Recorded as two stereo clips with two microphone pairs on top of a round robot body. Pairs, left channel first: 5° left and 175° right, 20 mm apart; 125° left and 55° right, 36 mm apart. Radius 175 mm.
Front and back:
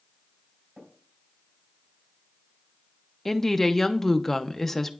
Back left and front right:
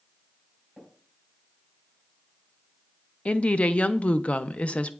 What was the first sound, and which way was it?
Tapping, 150° right.